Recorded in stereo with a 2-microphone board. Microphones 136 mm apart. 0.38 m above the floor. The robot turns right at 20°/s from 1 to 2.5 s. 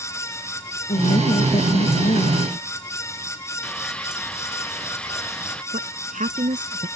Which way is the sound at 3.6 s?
5° left (ahead or behind).